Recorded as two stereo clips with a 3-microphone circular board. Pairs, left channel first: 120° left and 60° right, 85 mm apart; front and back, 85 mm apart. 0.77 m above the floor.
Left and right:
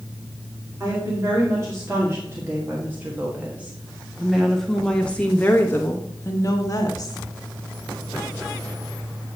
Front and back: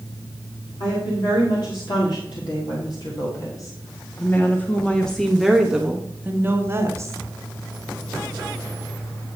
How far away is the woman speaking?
About 2.5 m.